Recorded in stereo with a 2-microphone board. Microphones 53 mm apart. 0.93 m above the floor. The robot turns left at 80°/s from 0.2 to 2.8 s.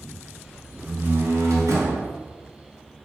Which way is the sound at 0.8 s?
25° right.